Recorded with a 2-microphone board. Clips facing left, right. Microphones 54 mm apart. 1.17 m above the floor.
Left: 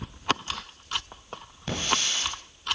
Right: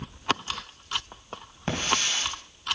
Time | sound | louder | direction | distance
1.7 | a hiss | right 1 dB | 35° right (ahead or behind) | 3 m